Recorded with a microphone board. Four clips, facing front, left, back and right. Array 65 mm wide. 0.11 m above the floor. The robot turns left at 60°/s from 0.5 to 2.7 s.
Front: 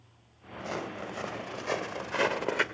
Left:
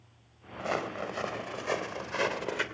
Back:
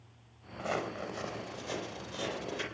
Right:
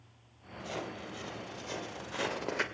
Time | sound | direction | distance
0.6 | footsteps | 105° left | 4 m